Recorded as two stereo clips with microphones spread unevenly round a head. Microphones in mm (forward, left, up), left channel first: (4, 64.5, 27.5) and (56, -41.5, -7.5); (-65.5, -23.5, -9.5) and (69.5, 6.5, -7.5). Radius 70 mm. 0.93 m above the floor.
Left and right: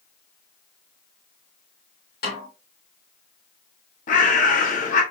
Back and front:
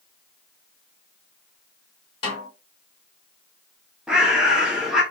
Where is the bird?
95° left, 1.0 m.